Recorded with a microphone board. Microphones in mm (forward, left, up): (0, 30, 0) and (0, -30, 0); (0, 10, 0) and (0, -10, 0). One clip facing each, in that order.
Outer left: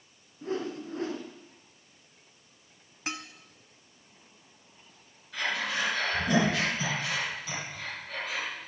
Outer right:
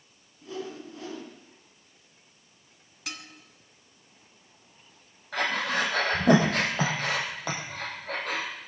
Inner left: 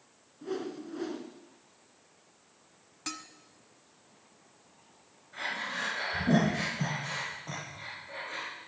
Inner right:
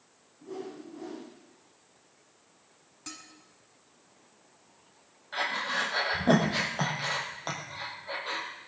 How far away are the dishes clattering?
About 1.2 m.